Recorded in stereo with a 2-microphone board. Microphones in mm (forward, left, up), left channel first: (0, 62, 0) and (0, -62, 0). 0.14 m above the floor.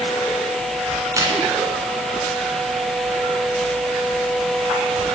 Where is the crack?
25° right (ahead or behind), 1.6 m.